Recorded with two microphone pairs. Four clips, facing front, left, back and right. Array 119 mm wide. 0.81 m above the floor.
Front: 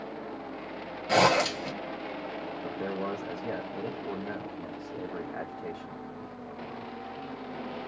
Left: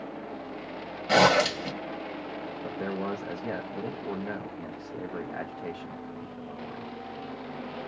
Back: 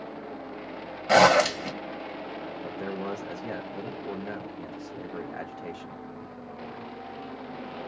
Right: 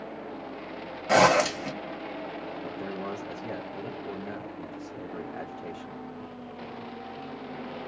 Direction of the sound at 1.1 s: 155° right.